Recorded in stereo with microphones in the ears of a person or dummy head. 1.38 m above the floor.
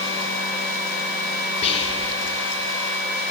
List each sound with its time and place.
1.6 s whispering: 30° left (ahead or behind), 0.9 m